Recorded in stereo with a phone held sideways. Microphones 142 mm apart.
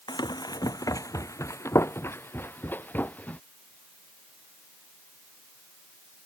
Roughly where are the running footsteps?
Left.